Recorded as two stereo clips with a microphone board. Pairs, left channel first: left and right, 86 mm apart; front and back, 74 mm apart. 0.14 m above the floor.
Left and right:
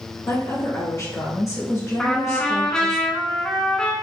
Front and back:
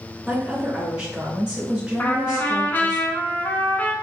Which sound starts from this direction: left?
A woman speaking, at 0.3 s.